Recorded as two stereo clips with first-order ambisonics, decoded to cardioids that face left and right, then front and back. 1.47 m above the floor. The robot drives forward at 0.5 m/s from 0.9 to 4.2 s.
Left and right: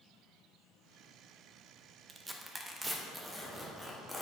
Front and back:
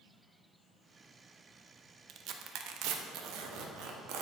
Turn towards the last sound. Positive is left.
turn(degrees=-175)